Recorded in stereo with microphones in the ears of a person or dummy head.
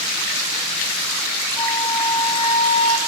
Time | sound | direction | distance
1.6 | a flute | 25° left (ahead or behind) | 2.5 m